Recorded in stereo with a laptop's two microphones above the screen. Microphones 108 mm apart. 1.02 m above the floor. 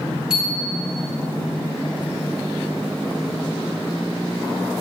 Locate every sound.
0.3 s a bicycle bell: 10° right (ahead or behind), 7.5 m